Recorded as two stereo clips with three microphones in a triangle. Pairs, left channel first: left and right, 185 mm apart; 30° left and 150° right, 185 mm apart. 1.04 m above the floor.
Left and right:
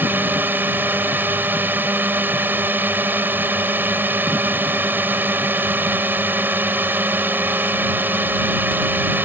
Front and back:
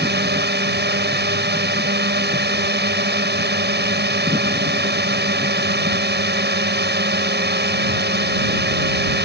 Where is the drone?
170° right.